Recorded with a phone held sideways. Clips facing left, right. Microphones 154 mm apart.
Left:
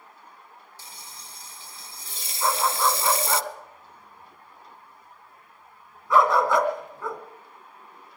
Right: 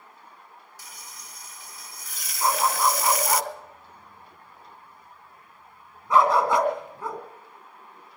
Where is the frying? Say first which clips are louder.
Left 1 dB; 30° left (ahead or behind), 0.5 m.